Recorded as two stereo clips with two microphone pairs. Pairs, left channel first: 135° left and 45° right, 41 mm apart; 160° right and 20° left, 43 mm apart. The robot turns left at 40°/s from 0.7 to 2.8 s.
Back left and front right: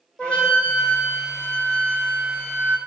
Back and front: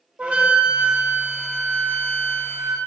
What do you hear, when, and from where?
0.2 s a flute: 80° left, 1.2 m; by 2.8 s 5° right, 1.2 m